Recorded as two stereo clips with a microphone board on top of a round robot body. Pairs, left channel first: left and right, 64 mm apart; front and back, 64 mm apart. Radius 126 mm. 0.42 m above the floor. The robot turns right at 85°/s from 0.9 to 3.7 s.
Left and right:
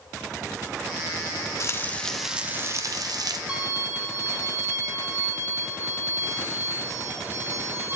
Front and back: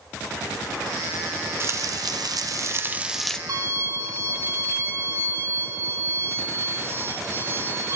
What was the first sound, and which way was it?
Frying, 130° left.